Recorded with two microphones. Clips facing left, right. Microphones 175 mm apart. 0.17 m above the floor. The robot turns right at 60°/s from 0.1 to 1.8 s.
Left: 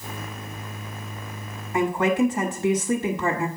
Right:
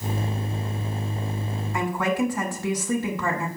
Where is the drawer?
No drawer in this recording.